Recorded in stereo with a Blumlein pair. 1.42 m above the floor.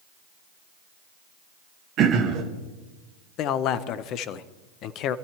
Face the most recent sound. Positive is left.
turn(degrees=35)